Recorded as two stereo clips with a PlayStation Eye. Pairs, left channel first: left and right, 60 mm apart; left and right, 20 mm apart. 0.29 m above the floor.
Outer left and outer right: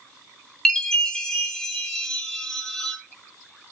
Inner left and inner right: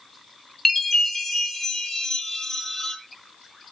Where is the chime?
10° left (ahead or behind), 1.9 m.